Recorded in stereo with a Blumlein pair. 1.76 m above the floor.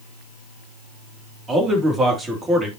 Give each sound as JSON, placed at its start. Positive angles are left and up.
{"t": 1.5, "sound": "a man speaking", "azimuth_deg": -20, "distance_m": 2.5}